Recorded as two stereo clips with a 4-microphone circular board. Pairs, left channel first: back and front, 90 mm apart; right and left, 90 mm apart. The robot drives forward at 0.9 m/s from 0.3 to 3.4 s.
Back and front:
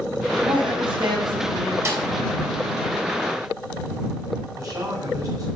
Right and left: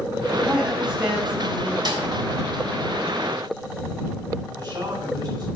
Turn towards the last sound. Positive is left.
turn(degrees=50)